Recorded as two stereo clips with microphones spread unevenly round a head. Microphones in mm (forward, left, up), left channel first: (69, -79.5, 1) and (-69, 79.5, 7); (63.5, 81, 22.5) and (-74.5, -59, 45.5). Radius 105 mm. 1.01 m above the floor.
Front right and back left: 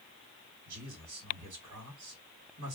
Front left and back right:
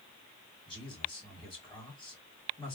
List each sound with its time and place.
0.7 s a man speaking: 110° left, 2 m